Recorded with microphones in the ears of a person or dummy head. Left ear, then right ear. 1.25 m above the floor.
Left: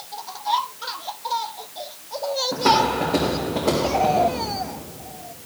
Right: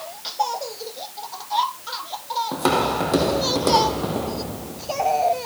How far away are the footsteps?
About 2.5 m.